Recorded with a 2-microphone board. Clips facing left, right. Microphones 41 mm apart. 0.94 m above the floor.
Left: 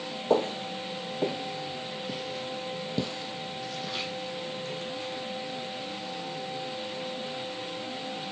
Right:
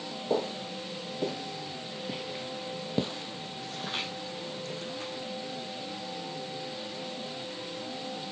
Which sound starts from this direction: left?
Footsteps, at 0.3 s.